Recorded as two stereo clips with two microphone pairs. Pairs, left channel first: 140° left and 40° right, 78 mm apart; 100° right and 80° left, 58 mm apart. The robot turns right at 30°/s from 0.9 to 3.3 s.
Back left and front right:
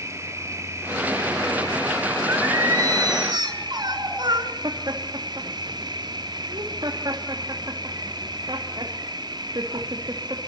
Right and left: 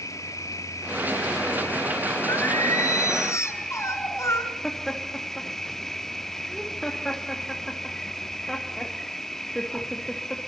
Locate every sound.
0.0 s an insect: 90° right, 0.8 m; by 10.5 s 15° right, 0.8 m
2.3 s singing: 100° right, 5 m; by 4.5 s 70° right, 5 m
4.6 s laughter: 15° right, 2 m